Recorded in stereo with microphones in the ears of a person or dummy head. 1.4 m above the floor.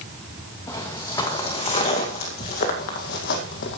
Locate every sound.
0.7 s footsteps: 15° left (ahead or behind), 2.5 m; by 3.8 s 50° left (ahead or behind), 2 m